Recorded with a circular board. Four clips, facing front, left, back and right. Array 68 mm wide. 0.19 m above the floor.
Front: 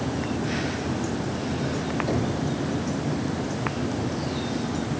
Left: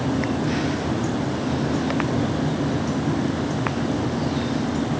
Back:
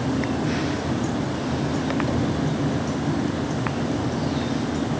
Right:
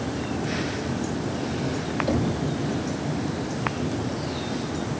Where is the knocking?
105° right, 6 m.